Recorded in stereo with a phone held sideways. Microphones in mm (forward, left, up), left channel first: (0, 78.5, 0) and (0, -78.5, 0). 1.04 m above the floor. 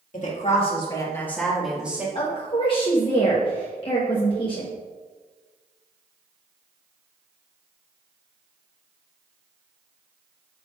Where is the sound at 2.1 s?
35° left (ahead or behind), 1.1 m.